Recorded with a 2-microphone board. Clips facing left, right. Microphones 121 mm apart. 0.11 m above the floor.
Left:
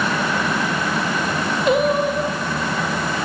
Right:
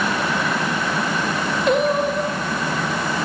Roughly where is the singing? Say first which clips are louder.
Left 1 dB; centre.